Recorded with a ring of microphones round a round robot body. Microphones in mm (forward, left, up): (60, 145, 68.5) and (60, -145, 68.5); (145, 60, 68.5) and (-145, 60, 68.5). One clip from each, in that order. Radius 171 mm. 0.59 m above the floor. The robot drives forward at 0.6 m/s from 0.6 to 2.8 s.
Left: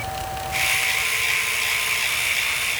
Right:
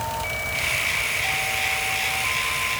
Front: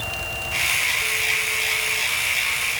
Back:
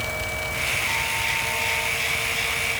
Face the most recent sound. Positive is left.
No sound to turn to.